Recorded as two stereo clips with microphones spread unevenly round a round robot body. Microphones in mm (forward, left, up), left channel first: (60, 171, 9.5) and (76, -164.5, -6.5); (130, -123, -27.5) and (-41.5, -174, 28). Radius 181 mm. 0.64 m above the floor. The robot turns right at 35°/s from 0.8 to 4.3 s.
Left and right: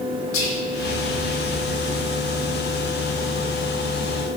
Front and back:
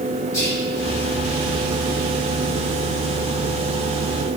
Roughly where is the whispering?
Ahead left.